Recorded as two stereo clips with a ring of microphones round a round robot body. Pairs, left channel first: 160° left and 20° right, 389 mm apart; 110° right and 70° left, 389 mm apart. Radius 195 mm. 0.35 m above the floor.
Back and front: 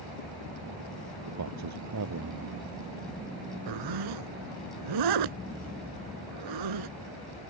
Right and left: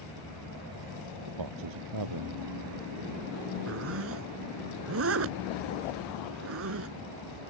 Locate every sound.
1.3 s a man speaking: 30° left
3.7 s a zipper: 10° left